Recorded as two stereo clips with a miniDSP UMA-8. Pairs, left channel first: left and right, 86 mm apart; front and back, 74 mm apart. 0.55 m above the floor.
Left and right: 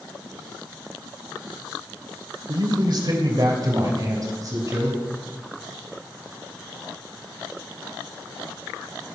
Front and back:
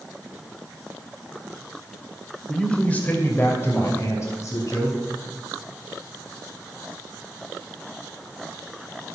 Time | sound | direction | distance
2.5 | a man speaking | 80° right | 2 m